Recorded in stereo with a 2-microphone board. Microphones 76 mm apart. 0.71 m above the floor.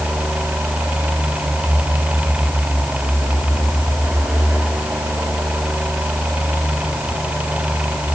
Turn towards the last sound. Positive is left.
No sound to turn to.